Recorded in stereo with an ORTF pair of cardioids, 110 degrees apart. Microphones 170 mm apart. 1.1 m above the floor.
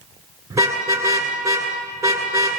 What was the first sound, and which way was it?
A car horn, 20° right.